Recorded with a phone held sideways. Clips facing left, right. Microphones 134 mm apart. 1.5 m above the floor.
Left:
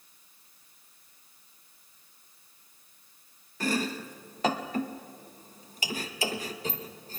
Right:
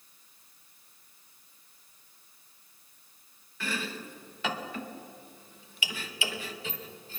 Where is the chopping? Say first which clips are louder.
Left 6 dB; 40° left (ahead or behind), 1.0 m.